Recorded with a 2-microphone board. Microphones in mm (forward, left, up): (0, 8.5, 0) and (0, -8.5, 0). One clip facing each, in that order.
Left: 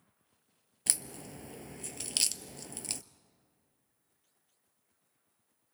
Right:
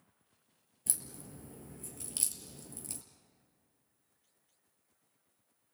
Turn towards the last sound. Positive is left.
turn(degrees=50)  # may be behind; listen again after turning